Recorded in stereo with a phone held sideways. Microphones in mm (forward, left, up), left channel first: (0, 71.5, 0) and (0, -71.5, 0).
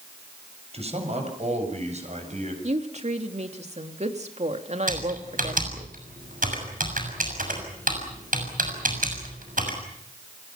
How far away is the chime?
No chime in this recording.